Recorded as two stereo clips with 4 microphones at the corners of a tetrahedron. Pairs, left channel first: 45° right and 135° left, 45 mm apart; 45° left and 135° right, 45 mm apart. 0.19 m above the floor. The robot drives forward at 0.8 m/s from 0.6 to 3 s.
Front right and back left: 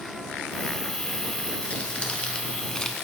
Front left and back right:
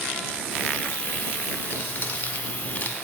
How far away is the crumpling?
About 2.0 m.